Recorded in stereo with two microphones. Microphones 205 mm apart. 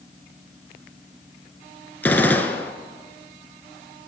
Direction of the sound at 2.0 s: 10° left (ahead or behind).